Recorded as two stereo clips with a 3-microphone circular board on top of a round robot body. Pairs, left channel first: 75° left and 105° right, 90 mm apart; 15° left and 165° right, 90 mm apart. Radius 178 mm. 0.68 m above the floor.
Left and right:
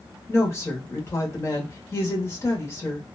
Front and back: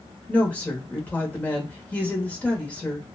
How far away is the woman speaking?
About 1.2 m.